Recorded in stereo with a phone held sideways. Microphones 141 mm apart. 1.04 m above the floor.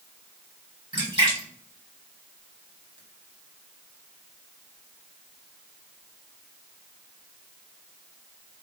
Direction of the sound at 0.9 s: 35° right (ahead or behind).